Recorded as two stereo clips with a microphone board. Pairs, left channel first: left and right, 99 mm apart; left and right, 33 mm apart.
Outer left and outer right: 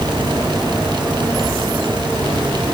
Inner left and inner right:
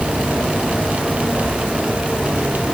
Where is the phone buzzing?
No phone buzzing in this recording.